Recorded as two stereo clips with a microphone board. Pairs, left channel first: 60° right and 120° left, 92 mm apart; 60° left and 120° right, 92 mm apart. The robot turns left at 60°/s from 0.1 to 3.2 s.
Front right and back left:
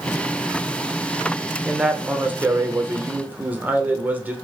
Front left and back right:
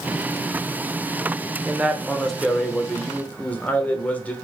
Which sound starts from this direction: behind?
A man speaking, at 1.6 s.